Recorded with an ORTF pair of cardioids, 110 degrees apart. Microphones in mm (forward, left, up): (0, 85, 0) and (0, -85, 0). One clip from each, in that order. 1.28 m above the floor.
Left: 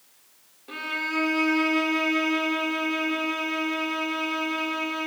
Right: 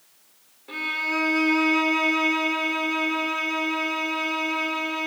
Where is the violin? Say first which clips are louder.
Right 3 dB; 5° left, 1.3 m.